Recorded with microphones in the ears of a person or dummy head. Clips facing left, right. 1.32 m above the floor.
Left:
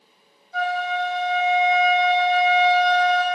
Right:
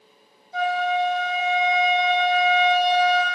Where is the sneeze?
No sneeze in this recording.